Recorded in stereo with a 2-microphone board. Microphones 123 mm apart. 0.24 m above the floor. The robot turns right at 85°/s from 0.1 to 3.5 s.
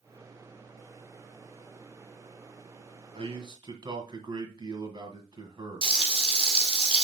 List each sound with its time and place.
3.1 s a man speaking: 85° right, 1.9 m; by 6.0 s 55° right, 1.9 m
5.8 s frying: 45° right (ahead or behind), 2.0 m